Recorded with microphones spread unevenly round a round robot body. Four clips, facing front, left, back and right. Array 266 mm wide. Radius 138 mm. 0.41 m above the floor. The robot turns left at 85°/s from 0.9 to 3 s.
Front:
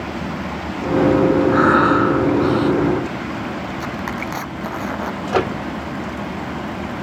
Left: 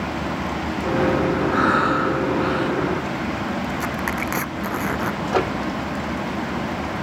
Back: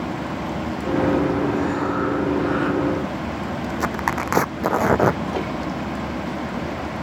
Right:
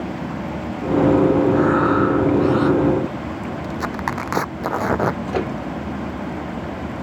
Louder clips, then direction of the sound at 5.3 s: Left 2 dB, front 6 dB; 10° right.